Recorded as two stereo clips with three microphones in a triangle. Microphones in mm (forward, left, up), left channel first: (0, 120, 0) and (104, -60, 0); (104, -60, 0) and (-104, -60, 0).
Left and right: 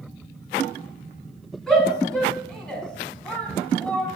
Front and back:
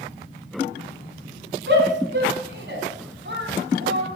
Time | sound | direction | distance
1.7 | a shout | 150° right | 5 m